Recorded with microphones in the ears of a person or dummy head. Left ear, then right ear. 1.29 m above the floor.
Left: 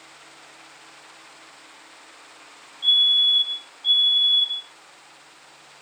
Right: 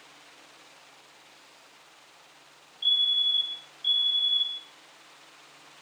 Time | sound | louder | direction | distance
2.8 | a fire alarm | left 7 dB | 25° right (ahead or behind) | 2.0 m